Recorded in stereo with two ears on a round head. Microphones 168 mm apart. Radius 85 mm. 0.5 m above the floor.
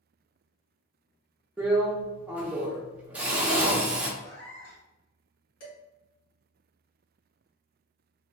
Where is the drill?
10° right (ahead or behind), 0.7 m.